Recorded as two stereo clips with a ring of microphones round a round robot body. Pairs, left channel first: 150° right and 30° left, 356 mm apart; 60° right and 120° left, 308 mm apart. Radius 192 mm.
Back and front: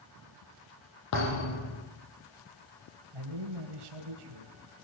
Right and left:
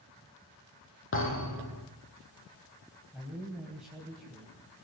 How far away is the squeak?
No squeak in this recording.